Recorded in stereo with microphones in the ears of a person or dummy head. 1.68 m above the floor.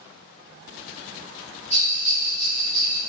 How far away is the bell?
About 0.9 m.